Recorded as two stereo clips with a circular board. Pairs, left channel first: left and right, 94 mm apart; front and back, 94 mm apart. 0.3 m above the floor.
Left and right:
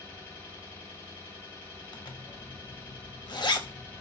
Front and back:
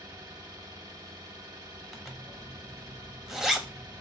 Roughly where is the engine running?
Behind left.